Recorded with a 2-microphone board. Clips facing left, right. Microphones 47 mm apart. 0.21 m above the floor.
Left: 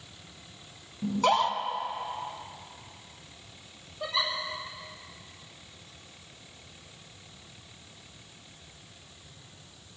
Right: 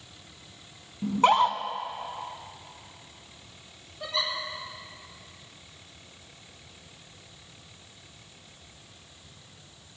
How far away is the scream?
About 1.4 m.